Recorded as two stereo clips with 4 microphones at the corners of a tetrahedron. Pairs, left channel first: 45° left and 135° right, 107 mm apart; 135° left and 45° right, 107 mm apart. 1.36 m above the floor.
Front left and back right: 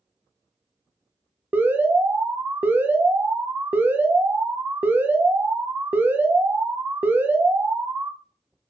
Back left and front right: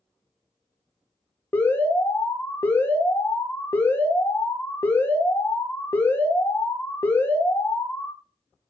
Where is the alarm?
175° left, 0.5 m.